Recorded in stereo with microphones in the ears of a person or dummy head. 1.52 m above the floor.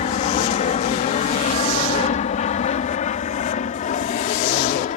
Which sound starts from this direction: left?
An aircraft, at 0.0 s.